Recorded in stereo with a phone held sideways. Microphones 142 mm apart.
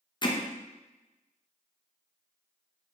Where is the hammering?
35° left (ahead or behind), 0.6 m.